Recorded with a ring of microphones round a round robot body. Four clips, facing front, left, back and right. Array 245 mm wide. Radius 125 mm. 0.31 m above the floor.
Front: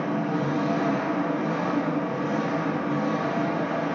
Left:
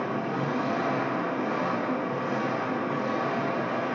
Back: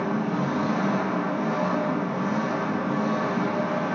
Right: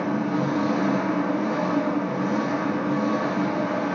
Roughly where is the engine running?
Behind right.